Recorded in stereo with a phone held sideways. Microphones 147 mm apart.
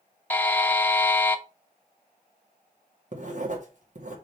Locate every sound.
0.3 s a buzzer: 10° left (ahead or behind), 0.7 m
3.1 s writing: 55° right (ahead or behind), 1.6 m